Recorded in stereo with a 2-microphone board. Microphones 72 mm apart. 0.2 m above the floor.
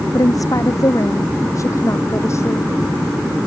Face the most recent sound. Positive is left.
turn(degrees=40)  # may be behind; listen again after turning